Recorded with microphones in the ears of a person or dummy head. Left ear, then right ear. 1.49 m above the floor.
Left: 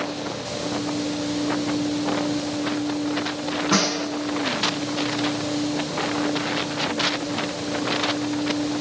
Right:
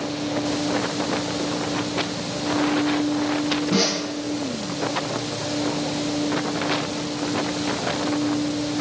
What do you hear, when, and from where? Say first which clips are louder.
3.7 s a snare drum: left 1 dB; 45° left (ahead or behind), 8 m